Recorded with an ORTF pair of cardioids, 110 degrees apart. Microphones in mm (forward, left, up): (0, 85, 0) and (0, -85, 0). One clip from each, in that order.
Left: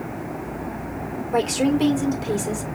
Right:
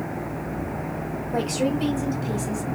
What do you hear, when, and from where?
1.3 s a woman speaking: 55° left, 2.5 m